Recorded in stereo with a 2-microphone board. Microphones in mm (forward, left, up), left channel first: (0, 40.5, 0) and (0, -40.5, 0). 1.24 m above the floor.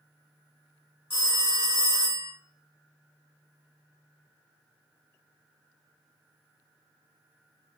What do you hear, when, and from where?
1.1 s a phone ringing: 25° right (ahead or behind), 1.2 m